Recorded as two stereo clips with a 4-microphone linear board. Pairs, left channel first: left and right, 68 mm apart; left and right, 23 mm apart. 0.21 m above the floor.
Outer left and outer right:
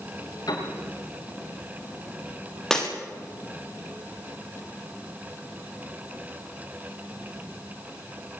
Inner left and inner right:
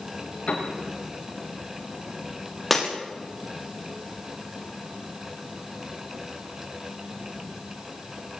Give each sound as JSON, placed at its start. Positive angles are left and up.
{"t": 0.5, "sound": "a piano", "side_deg": 70, "distance_m": 10.0}
{"t": 2.7, "sound": "breaking glass", "side_deg": 5, "distance_m": 7.5}